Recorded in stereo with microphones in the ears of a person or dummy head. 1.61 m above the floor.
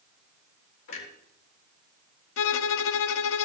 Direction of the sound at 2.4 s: 80° left.